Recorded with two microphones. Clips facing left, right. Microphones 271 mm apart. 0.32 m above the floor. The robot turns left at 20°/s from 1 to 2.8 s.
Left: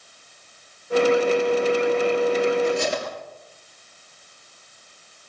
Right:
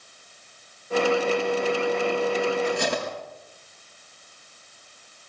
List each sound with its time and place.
2.6 s cutlery clinking: 65° right (ahead or behind), 4 m